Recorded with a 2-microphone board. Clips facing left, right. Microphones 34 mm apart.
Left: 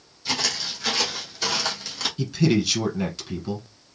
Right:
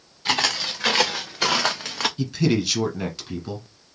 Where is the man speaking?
Centre (ahead or behind), 1.3 m.